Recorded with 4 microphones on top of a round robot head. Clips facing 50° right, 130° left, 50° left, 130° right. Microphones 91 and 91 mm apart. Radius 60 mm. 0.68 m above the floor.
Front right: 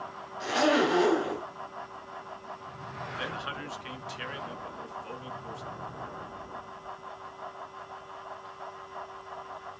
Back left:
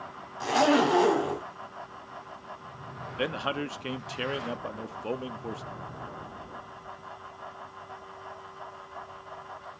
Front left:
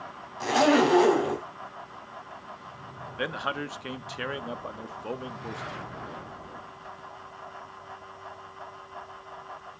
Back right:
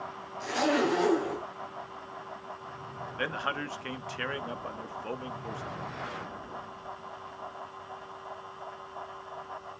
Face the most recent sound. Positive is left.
turn(degrees=125)